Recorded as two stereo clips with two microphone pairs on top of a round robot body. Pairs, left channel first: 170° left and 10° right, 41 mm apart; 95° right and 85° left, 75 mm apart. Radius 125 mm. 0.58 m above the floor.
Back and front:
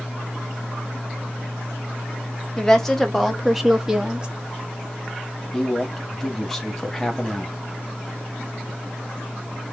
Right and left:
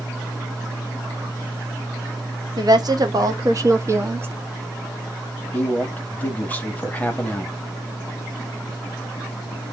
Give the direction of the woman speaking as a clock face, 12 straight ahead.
9 o'clock.